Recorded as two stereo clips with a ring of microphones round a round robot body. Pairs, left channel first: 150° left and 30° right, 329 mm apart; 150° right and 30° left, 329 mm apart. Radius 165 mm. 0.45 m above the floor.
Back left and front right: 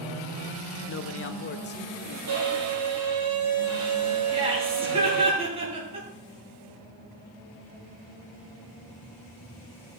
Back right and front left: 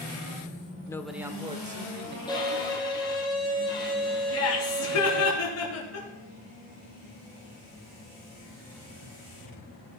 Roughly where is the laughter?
Right.